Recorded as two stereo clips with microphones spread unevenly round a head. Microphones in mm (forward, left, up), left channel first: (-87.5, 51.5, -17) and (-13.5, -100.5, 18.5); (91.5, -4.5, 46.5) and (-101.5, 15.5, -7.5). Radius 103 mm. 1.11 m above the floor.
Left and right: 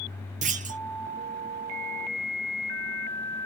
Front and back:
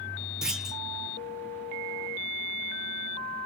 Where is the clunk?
110° right, 0.5 m.